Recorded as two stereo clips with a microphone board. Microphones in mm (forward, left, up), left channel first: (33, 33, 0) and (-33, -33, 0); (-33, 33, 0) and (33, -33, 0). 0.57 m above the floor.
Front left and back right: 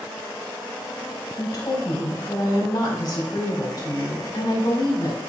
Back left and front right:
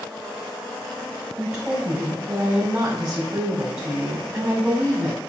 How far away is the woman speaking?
About 1.8 m.